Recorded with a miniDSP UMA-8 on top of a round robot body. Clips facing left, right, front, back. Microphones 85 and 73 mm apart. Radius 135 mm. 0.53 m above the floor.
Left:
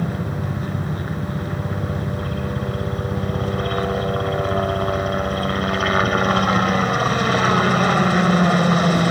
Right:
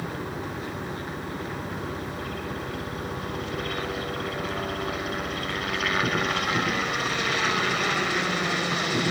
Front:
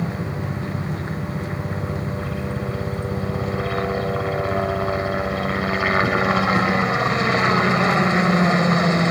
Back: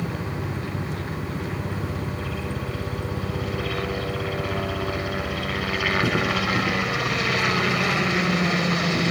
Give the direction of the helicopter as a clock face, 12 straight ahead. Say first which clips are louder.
Left 6 dB, front 3 dB; 10 o'clock.